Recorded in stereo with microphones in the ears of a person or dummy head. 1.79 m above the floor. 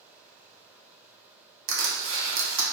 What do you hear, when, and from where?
1.7 s crushing: 75° right (ahead or behind), 1.0 m